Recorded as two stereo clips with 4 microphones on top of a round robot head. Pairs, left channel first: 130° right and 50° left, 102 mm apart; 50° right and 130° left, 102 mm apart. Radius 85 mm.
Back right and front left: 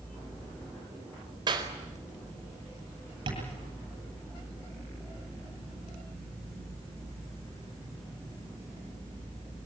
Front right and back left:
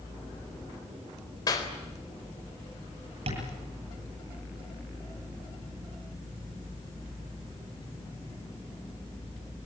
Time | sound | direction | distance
1.5 | a clap | 5° left | 4 m
3.3 | tapping | 95° left | 10 m